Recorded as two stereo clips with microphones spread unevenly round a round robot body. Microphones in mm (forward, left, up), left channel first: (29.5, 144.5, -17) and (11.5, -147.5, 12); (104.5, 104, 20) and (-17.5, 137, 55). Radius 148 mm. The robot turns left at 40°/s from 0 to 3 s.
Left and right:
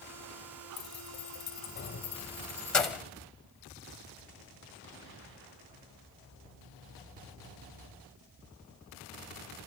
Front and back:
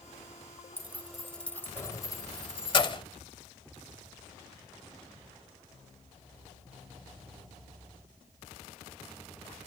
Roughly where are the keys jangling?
Left.